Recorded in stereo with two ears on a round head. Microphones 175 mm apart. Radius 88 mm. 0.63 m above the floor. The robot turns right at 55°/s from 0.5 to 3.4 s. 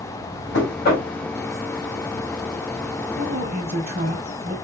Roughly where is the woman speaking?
Right.